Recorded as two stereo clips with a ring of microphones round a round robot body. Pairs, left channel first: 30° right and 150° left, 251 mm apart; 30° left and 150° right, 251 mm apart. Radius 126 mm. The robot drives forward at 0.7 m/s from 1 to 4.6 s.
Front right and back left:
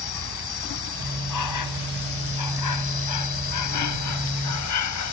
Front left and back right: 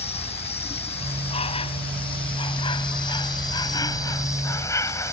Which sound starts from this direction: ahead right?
An insect, at 0.0 s.